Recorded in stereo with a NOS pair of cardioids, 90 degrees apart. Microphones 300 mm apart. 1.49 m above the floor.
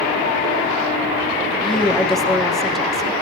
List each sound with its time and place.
1.6 s a woman speaking: straight ahead, 3.5 m